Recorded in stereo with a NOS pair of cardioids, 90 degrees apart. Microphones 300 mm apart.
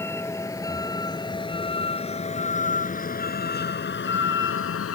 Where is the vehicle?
10° left; by 5.0 s 50° left.